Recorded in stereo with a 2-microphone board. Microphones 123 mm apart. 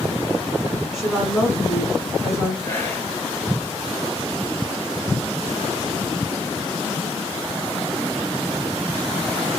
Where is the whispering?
20° left (ahead or behind), 1.2 m.